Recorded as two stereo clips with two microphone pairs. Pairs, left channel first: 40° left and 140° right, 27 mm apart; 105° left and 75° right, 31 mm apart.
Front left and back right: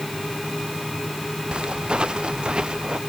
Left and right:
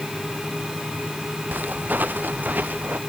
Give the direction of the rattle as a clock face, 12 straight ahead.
No rattle in this recording.